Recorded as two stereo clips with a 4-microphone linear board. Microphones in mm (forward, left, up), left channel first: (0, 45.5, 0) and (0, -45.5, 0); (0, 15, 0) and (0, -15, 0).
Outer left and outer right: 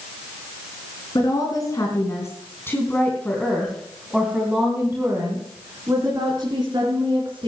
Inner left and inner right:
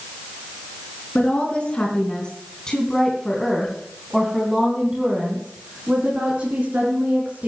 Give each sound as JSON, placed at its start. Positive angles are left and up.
{"t": 1.1, "sound": "a woman speaking", "side_deg": 45, "distance_m": 4.0}